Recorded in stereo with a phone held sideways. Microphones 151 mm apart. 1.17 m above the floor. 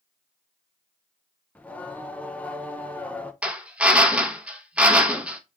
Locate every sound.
1.6 s singing: 10° left (ahead or behind), 0.5 m
3.4 s a drill: 10° right (ahead or behind), 0.7 m